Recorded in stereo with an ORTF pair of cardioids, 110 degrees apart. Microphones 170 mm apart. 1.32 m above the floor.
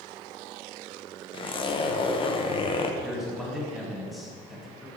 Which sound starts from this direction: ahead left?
A zipper, at 1.3 s.